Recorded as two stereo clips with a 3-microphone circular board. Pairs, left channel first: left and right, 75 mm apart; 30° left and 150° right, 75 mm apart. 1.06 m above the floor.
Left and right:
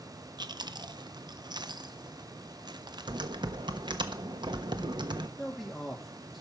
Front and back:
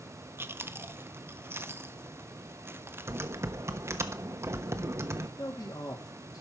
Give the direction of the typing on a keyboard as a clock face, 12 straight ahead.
3 o'clock.